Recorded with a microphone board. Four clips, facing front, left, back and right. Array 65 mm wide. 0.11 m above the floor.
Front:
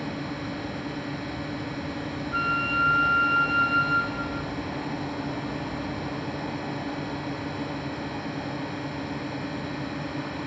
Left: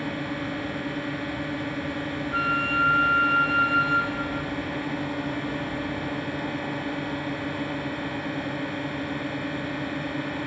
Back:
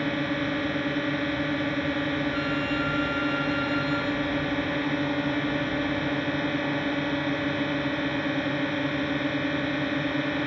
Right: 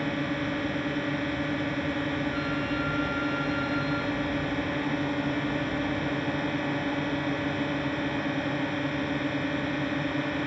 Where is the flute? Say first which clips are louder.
Left 5 dB, front 2 dB; 55° left.